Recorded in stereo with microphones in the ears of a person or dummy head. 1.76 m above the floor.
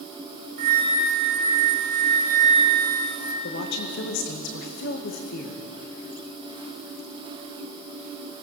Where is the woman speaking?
65° left (ahead or behind), 2 m.